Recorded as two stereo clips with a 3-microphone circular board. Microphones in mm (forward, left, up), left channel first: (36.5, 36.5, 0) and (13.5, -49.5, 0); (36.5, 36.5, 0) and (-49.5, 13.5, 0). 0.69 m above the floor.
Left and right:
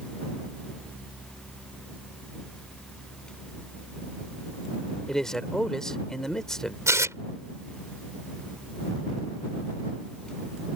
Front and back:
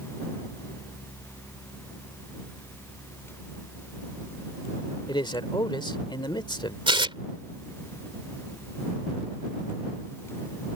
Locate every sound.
5.1 s a man speaking: 10° right
6.9 s tearing paper: 160° right